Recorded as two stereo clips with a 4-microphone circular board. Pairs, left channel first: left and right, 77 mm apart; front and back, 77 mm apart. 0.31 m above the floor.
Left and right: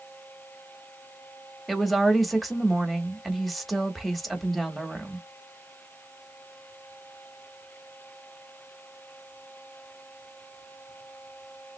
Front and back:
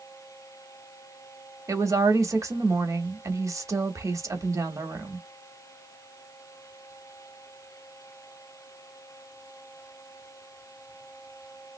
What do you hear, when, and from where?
1.7 s a woman speaking: straight behind, 1.3 m